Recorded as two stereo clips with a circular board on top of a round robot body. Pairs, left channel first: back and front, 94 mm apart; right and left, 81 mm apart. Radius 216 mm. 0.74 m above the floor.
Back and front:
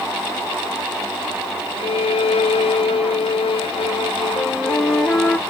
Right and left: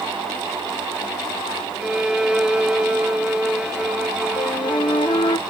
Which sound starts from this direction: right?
A flute, at 4.4 s.